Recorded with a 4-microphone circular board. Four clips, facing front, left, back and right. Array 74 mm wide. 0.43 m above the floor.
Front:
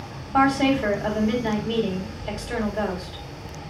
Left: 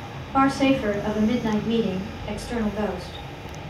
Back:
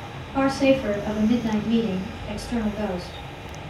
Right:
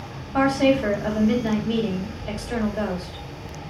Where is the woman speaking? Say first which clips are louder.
Right 1 dB, front 1 dB; 25° left, 2 m.